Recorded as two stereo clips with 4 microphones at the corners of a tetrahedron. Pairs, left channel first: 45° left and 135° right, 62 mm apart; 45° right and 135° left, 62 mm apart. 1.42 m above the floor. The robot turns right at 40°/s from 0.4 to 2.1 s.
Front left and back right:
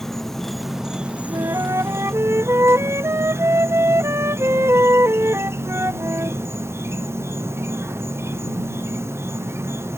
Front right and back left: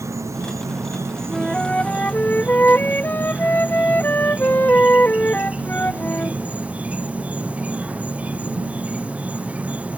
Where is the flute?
135° right; by 6.4 s 105° right.